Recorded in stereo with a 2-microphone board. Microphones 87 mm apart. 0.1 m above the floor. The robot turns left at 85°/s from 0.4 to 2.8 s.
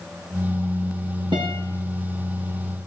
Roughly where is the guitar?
Right.